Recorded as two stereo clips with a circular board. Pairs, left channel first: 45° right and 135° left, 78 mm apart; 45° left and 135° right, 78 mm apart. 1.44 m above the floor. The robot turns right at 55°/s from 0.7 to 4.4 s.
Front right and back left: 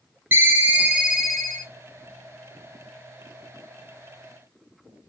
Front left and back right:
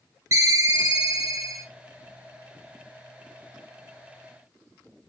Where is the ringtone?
165° right, 0.7 m; by 1.7 s 115° right, 0.7 m.